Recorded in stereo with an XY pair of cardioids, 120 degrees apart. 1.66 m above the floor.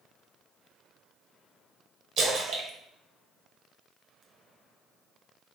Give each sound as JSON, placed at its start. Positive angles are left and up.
{"t": 2.2, "sound": "a splash", "azimuth_deg": -65, "distance_m": 1.3}